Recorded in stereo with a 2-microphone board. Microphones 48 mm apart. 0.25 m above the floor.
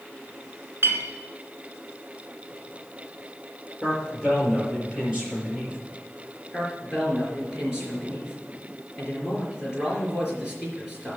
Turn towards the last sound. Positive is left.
turn(degrees=-15)  # may be behind; listen again after turning